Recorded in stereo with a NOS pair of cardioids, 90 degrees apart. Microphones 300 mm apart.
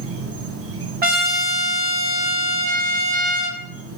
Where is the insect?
50° right, 0.7 m.